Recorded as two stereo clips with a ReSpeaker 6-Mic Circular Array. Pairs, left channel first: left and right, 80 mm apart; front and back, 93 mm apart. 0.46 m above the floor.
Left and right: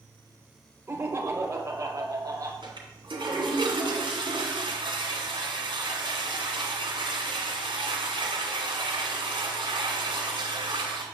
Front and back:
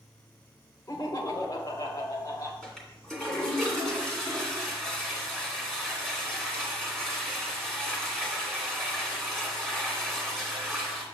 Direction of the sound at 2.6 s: 85° right.